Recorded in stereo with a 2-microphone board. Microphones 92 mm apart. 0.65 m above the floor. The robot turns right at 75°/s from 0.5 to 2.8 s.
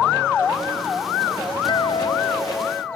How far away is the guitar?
About 1.0 m.